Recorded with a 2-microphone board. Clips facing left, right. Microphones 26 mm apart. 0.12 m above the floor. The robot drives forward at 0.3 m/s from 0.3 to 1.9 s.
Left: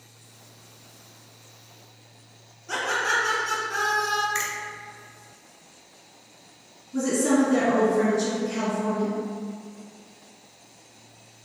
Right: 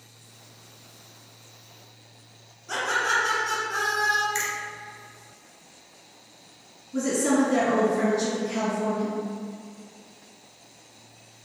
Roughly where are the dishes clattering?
I don't hear dishes clattering.